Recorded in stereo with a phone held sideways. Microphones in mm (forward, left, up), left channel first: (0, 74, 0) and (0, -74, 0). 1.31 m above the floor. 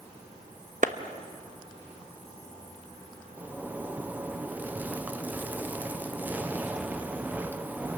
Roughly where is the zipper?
Centre.